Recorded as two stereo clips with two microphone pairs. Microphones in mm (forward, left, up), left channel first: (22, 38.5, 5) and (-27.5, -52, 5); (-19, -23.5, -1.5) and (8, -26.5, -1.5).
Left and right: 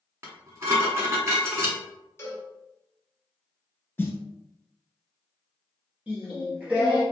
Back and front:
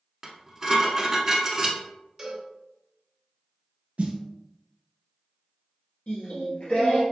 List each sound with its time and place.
0.2 s dishes clattering: 80° right, 1.0 m
2.2 s a cowbell: 50° left, 1.6 m
4.0 s a snare drum: 5° right, 0.8 m
6.1 s singing: 170° left, 1.4 m